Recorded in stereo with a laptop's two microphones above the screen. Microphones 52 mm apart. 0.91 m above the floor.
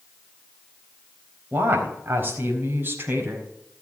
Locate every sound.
1.5 s a woman speaking: 45° right (ahead or behind), 4 m